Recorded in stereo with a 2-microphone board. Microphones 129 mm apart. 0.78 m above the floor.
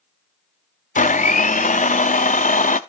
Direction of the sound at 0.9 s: 70° left (ahead or behind).